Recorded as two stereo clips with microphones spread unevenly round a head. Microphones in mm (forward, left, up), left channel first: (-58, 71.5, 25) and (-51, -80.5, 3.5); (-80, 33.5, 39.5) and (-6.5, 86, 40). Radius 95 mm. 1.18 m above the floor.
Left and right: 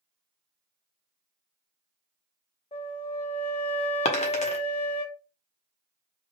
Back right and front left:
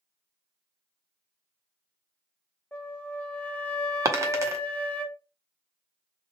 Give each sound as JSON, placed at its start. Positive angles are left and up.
{"t": 2.7, "sound": "a flute", "azimuth_deg": 145, "distance_m": 1.1}
{"t": 4.0, "sound": "a dropped coin", "azimuth_deg": 80, "distance_m": 0.8}